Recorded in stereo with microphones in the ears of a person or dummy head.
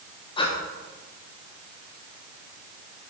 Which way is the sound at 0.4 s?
25° left (ahead or behind).